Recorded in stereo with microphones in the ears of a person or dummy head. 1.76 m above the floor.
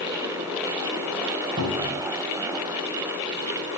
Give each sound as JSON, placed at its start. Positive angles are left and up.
{"t": 1.6, "sound": "a cupboard door", "side_deg": -55, "distance_m": 3.5}